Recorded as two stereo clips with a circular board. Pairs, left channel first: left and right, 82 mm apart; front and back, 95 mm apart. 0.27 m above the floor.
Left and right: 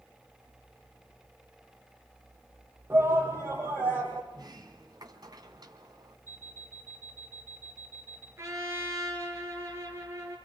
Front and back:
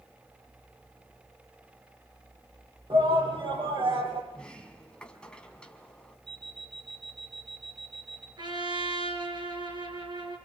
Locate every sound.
2.9 s a shout: 150° right, 9 m
4.3 s a sliding door: 80° right, 2 m
6.3 s an alarm clock: 155° right, 2.5 m
8.4 s a trumpet: 140° right, 5 m